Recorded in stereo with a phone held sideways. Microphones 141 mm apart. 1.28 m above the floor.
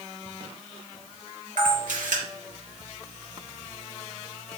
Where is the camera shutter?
75° right (ahead or behind), 4 m.